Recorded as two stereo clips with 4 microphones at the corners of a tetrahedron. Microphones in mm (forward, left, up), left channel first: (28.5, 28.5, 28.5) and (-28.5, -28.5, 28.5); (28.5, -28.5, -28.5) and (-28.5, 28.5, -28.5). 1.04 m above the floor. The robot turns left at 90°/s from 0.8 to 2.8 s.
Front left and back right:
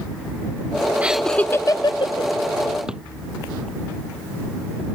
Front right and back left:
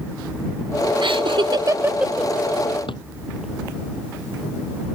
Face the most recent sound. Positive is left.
turn(degrees=-55)